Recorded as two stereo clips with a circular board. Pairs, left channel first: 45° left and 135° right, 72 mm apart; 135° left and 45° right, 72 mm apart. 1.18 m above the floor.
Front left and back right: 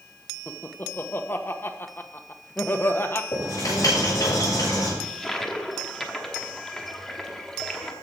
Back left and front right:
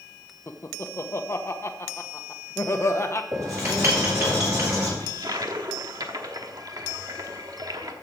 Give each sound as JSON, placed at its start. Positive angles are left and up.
{"t": 0.5, "sound": "laughter", "azimuth_deg": 95, "distance_m": 1.1}
{"t": 3.3, "sound": "writing", "azimuth_deg": 0, "distance_m": 7.0}
{"t": 5.0, "sound": "a toilet flushing", "azimuth_deg": -40, "distance_m": 1.1}